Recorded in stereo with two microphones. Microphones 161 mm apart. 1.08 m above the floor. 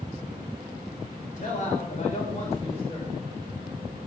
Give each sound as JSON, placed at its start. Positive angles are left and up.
{"t": 1.4, "sound": "a man speaking", "side_deg": 55, "distance_m": 3.5}